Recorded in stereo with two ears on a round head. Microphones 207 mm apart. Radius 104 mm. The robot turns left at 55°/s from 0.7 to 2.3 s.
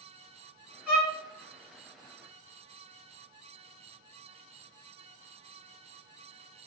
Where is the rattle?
No rattle in this recording.